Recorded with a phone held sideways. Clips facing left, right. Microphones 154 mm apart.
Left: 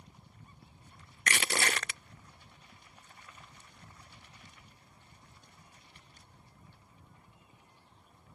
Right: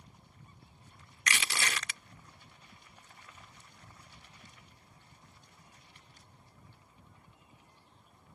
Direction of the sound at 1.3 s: 45° left (ahead or behind).